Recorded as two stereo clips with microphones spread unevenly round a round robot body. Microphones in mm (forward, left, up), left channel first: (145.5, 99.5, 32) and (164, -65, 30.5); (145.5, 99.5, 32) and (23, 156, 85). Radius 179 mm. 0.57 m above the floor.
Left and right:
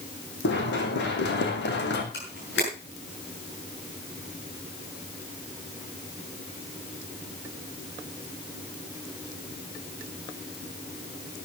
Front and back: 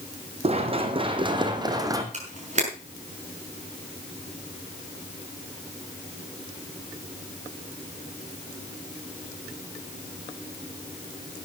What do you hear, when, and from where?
0.4 s running footsteps: 125° left, 2 m; by 2.0 s 95° left, 2.5 m
2.1 s a camera shutter: 120° left, 6.5 m